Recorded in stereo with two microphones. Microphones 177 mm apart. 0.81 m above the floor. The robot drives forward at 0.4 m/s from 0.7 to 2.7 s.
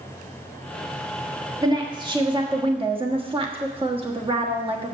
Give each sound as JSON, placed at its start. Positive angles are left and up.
{"t": 1.6, "sound": "a woman speaking", "side_deg": -25, "distance_m": 1.7}